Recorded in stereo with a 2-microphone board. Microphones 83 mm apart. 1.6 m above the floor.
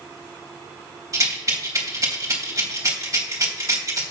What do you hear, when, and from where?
1.1 s a rattle: 35° right (ahead or behind), 3 m